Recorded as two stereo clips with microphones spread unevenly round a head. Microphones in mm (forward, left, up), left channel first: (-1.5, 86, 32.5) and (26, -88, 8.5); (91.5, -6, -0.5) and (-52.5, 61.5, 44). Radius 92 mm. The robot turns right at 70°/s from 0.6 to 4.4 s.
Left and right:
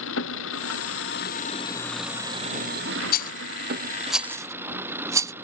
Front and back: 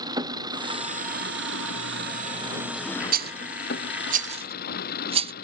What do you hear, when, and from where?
0.0 s an engine running: 90° left; by 5.5 s 5° right
3.1 s a rattle: 125° left; by 5.3 s 145° right